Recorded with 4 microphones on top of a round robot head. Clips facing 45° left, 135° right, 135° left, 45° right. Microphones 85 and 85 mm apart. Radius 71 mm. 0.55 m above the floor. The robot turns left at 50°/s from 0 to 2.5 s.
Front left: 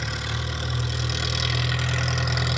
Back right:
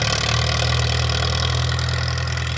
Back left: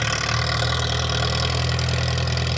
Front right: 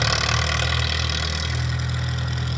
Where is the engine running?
120° right, 1.0 m; by 2.6 s 115° left, 1.0 m.